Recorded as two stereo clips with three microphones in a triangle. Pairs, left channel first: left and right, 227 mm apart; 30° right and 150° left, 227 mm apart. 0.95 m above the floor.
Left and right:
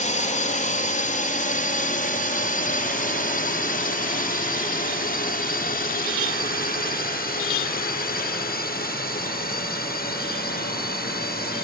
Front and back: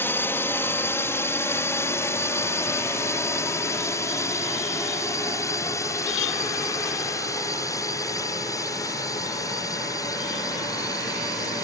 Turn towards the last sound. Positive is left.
turn(degrees=45)